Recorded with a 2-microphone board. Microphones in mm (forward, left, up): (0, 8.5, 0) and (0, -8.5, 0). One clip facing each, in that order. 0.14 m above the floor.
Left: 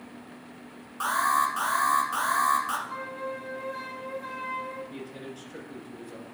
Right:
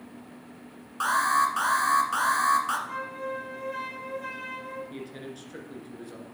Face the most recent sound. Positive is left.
turn(degrees=-15)  # may be behind; listen again after turning